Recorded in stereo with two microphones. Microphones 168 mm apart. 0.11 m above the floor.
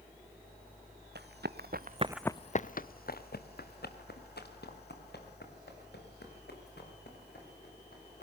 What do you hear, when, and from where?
1.1 s running footsteps: 85° right, 1.3 m; by 8.2 s 75° left (ahead or behind), 8 m